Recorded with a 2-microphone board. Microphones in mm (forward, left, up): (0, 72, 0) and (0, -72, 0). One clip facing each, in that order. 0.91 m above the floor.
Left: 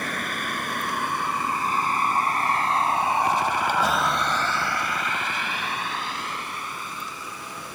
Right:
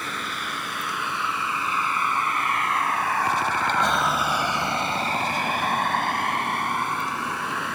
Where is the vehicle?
55° left (ahead or behind); by 7.8 s 75° right (ahead or behind).